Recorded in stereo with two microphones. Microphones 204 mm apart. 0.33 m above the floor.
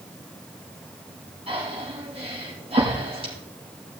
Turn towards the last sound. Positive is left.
turn(degrees=-30)  # may be behind; listen again after turning